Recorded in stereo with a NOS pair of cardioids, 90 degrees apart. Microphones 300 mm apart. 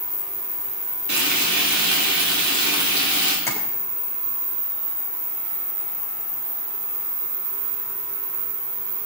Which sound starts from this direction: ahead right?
Frying, at 1.1 s.